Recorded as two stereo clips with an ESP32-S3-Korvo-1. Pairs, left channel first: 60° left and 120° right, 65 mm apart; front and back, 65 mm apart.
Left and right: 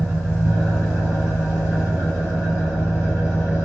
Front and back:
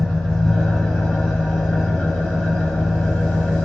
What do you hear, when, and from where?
0.0 s an engine running: 65° right, 1.8 m